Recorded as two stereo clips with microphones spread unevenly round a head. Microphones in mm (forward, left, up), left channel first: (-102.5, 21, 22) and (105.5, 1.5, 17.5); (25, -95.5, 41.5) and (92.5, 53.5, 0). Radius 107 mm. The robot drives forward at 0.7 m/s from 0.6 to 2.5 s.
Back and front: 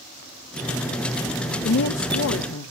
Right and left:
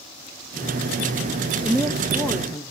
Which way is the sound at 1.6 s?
135° left.